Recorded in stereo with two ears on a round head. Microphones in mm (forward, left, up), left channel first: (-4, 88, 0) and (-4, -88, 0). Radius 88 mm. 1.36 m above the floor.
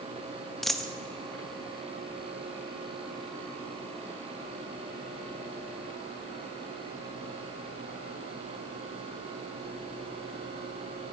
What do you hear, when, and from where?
0.6 s a dropped coin: centre (ahead or behind), 0.6 m